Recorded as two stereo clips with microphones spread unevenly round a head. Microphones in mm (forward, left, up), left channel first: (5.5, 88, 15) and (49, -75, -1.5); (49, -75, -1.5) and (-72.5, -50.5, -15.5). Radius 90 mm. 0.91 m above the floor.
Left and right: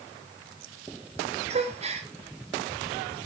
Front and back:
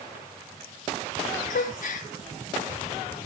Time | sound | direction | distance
1.5 | a gasp | 25° right | 1.3 m